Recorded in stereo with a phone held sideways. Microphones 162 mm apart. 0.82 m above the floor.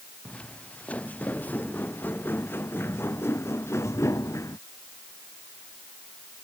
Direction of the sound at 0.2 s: 5° left (ahead or behind).